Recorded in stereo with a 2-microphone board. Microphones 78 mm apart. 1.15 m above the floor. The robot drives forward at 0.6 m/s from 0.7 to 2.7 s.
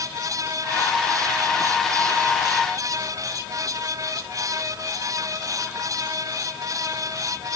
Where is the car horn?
No car horn in this recording.